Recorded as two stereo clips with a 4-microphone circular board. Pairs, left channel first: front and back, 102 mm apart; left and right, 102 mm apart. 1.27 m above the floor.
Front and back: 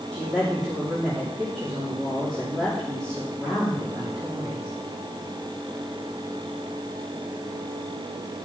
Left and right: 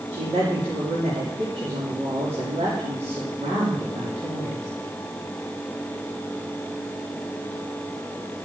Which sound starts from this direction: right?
A woman speaking, at 0.1 s.